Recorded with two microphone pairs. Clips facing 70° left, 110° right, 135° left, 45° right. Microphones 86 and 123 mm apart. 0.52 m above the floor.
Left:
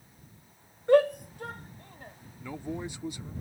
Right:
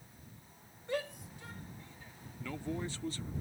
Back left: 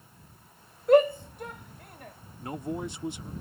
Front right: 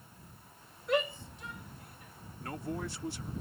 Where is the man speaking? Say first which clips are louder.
Left 3 dB, back left 4 dB; 105° left.